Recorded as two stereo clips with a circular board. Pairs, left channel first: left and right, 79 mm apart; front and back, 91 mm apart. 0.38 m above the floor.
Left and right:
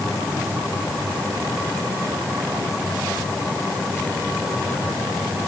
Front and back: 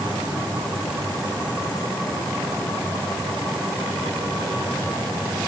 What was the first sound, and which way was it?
Only background noise.